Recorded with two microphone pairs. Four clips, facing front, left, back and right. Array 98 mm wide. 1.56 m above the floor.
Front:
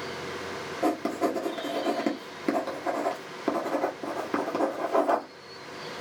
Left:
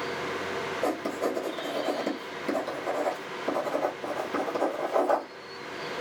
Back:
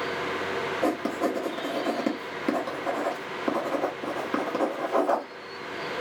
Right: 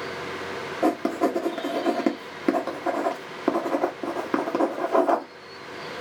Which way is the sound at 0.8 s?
100° right.